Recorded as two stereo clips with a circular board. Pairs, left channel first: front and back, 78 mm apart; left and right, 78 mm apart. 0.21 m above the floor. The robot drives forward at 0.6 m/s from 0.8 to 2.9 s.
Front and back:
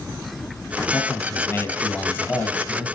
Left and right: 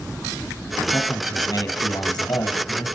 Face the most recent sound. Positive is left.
turn(degrees=70)